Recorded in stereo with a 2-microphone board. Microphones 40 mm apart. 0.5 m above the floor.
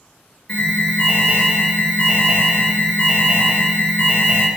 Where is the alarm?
25° left (ahead or behind), 2.5 m.